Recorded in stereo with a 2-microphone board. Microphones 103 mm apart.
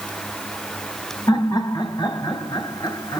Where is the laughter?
40° left (ahead or behind), 1.9 m.